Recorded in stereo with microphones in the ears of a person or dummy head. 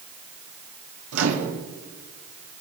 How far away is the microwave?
About 1.9 m.